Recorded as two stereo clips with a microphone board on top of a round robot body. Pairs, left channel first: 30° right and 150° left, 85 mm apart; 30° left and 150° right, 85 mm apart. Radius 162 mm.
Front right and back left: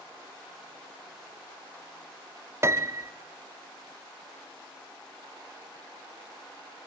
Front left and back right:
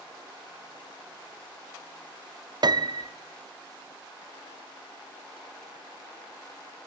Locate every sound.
2.6 s a piano: 160° right, 1.2 m